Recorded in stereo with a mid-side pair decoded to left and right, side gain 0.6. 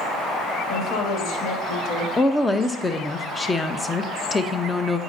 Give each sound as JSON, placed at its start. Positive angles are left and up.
{"t": 0.7, "sound": "a woman speaking", "azimuth_deg": 60, "distance_m": 1.8}
{"t": 2.2, "sound": "a woman speaking", "azimuth_deg": 15, "distance_m": 0.7}